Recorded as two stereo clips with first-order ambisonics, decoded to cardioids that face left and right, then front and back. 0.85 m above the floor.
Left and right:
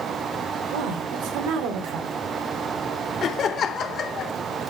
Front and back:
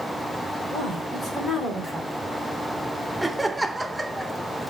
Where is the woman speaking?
75° right, 2.5 m.